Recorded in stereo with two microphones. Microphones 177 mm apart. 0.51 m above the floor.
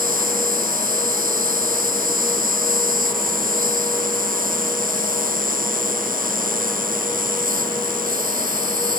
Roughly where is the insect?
Right.